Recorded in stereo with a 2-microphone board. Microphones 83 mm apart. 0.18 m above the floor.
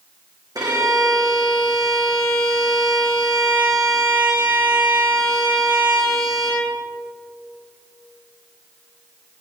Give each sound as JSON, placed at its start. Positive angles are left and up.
{"t": 0.6, "sound": "a violin", "side_deg": -50, "distance_m": 3.5}